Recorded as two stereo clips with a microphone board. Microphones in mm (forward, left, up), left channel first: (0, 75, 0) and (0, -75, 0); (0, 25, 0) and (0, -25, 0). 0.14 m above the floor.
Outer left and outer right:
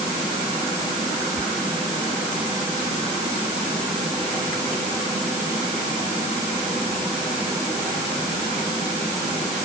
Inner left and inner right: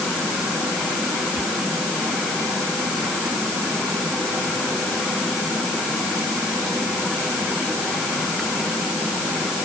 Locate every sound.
Only background noise.